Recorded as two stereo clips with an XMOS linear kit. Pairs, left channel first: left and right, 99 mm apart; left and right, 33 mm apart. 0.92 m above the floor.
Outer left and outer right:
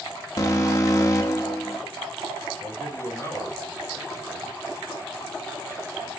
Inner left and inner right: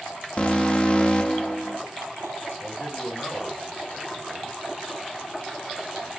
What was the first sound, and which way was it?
An alarm, 35° left (ahead or behind).